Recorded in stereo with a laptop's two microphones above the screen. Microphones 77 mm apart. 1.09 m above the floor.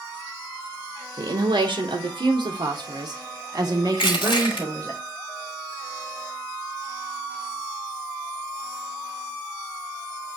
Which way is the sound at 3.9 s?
85° left.